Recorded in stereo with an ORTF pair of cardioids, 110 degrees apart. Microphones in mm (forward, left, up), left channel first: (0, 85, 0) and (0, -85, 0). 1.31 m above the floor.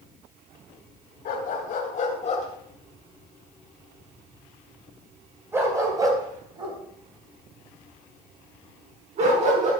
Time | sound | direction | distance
1.2 | a dog barking | 60° left | 3.5 m